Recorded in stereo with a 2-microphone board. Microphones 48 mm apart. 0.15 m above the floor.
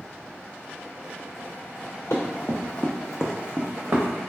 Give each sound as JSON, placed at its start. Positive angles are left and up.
{"t": 2.1, "sound": "running footsteps", "side_deg": 60, "distance_m": 1.1}